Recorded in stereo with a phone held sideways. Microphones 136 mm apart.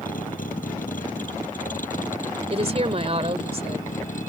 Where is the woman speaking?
50° right (ahead or behind).